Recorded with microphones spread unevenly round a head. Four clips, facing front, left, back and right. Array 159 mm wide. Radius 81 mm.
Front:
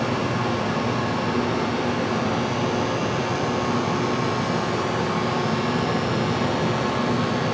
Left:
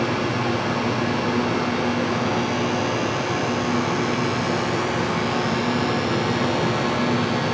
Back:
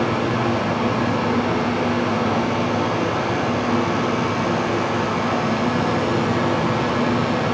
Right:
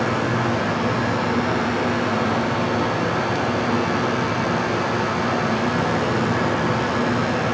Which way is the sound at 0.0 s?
160° right.